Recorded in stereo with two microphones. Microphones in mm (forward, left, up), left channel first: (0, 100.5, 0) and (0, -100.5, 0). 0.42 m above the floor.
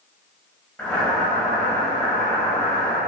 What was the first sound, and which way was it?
Boiling, 5° left (ahead or behind).